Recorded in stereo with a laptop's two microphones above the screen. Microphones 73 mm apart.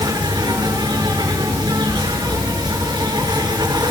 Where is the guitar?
I don't hear a guitar.